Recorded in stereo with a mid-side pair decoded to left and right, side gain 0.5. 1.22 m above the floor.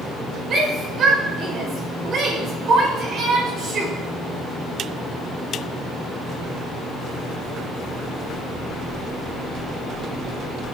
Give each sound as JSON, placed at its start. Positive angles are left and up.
{"t": 0.5, "sound": "a shout", "azimuth_deg": -55, "distance_m": 6.0}